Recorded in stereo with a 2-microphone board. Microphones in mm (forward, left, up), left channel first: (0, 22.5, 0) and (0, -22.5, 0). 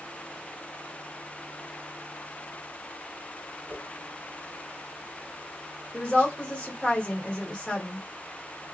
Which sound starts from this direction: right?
A whoosh, at 3.7 s.